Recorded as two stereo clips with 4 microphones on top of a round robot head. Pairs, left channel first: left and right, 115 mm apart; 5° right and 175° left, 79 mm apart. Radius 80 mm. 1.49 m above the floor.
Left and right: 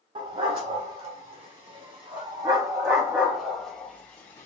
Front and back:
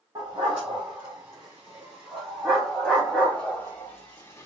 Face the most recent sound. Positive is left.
turn(degrees=30)